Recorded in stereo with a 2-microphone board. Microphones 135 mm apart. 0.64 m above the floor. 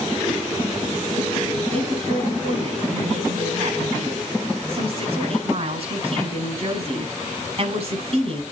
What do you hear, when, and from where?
1.7 s a woman speaking: 50° right (ahead or behind), 5.5 m